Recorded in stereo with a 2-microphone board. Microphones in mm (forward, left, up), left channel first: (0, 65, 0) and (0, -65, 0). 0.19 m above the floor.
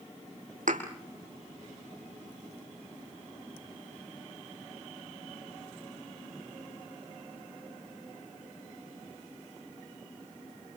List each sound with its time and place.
0.7 s a thud: 75° right (ahead or behind), 4 m